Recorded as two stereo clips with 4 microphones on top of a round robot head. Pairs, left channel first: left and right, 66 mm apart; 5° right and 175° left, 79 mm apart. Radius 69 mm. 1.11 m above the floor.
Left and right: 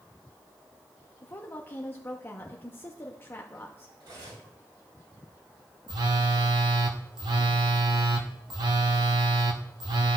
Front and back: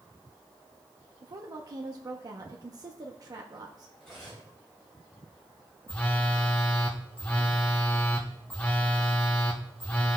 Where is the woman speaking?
140° left, 0.9 m.